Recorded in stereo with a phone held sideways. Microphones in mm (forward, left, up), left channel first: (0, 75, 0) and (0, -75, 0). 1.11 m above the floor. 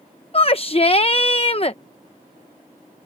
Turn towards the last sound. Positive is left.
turn(degrees=40)  # may be behind; listen again after turning